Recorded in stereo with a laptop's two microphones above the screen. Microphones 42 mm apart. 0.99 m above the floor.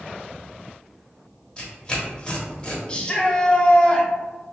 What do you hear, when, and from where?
1.6 s tearing paper: 25° left (ahead or behind), 1.3 m
2.9 s a shout: 25° left (ahead or behind), 0.6 m